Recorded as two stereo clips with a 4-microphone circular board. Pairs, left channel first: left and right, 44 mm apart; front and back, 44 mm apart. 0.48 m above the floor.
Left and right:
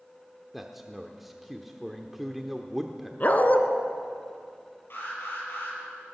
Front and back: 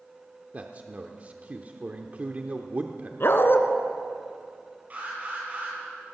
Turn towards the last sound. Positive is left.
turn(degrees=125)